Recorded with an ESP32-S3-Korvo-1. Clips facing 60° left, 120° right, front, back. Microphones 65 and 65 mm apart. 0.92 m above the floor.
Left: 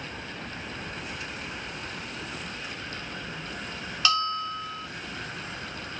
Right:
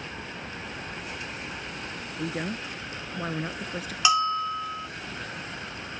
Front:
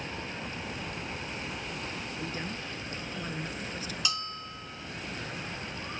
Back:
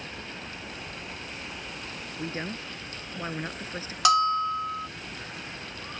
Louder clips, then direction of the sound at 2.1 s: Right 6 dB, back 2 dB; 125° right.